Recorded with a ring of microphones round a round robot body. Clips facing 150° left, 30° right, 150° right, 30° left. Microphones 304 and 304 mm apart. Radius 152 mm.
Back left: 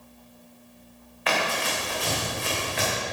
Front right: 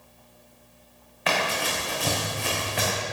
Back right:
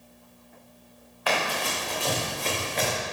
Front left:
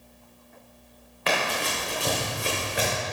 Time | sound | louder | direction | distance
1.3 | running footsteps | even, front left 1 dB | 35° right | 4 m